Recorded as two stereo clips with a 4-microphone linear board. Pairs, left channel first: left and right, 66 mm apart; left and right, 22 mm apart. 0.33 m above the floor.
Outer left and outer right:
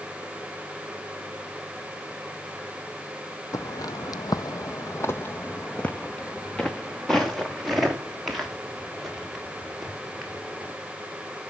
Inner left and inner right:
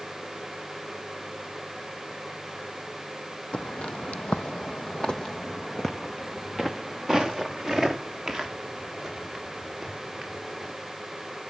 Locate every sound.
3.5 s footsteps: 60° left (ahead or behind), 1.1 m; by 10.7 s 5° right (ahead or behind), 5.5 m